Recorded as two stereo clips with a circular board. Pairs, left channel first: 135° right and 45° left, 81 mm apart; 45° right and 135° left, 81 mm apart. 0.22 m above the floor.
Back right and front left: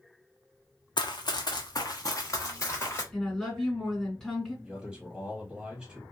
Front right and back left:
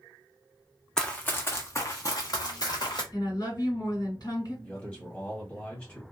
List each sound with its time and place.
1.0 s running footsteps: 125° right, 0.6 m; by 3.0 s 75° right, 1.4 m
3.1 s a woman speaking: 45° right, 2 m
4.6 s a man speaking: 5° right, 1.2 m